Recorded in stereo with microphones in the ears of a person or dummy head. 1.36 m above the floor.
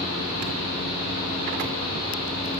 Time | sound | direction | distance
0.0 | a fan | 25° right (ahead or behind) | 1.7 m